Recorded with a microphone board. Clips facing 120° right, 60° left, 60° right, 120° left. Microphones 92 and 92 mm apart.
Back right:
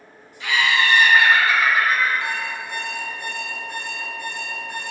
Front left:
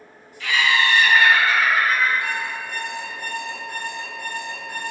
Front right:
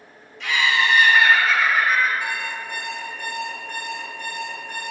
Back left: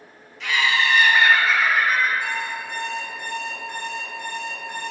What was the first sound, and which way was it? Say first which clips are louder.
Laughter: even, front right 1 dB; 150° right.